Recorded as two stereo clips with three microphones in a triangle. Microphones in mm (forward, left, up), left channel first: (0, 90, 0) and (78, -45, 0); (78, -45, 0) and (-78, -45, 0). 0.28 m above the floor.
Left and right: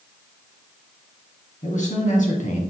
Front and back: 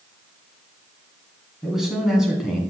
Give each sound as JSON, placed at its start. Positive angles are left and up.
{"t": 1.6, "sound": "a man speaking", "azimuth_deg": 95, "distance_m": 2.5}